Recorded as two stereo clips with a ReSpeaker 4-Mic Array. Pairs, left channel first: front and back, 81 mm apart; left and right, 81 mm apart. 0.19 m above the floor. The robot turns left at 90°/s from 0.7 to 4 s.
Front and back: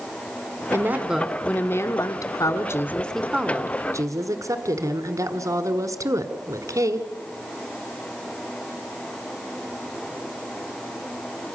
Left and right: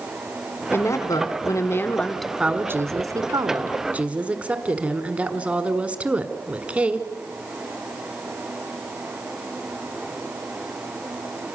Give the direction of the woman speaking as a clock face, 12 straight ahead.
7 o'clock.